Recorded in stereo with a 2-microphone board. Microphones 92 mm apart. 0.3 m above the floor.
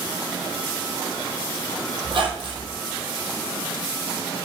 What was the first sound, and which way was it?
A squeak, 65° right (ahead or behind).